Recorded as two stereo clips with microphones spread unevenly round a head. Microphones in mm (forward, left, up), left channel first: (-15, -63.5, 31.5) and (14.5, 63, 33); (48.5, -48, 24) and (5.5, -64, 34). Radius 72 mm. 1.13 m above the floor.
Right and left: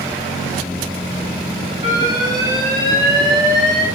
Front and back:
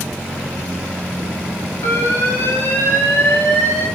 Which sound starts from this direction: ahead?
An alarm, at 1.8 s.